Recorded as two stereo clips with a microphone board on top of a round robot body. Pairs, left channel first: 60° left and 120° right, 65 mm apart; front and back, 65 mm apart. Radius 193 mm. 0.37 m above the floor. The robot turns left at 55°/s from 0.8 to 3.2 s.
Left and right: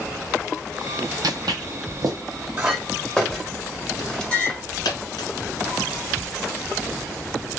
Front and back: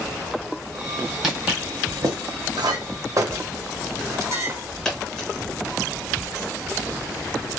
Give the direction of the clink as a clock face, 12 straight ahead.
6 o'clock.